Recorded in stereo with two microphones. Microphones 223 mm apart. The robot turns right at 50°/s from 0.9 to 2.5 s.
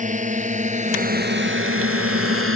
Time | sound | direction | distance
0.0 | a drone | 35° right (ahead or behind) | ?